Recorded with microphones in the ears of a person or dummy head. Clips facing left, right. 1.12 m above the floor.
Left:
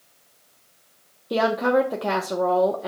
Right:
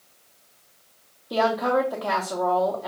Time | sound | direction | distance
1.3 | a woman speaking | 35° left (ahead or behind) | 0.6 m